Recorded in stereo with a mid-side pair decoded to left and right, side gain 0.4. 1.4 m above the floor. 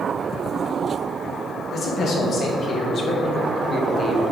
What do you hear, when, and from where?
1.7 s a man speaking: 60° left, 2.5 m; by 4.2 s 45° left, 1.1 m